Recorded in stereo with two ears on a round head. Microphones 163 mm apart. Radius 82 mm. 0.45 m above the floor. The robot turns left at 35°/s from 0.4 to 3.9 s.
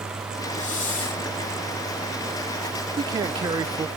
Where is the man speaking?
25° right (ahead or behind), 0.7 m; by 3.9 s 20° right (ahead or behind), 0.7 m.